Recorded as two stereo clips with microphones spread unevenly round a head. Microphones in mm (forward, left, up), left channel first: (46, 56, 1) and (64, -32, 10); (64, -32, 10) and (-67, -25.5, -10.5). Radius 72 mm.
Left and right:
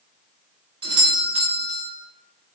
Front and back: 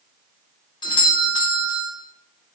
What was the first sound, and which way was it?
A doorbell, 60° right.